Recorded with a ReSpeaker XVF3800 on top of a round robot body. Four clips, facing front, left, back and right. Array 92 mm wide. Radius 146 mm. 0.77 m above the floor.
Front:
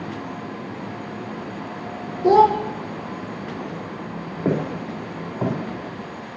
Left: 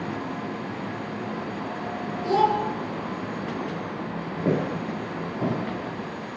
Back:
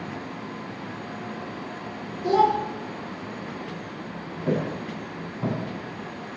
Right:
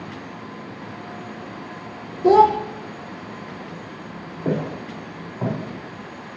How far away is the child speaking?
About 0.6 m.